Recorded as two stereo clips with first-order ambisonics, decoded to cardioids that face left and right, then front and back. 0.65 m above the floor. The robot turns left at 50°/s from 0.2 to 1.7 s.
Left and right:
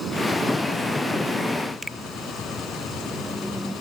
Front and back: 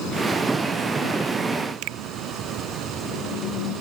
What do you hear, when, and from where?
1.8 s a finger snap: straight behind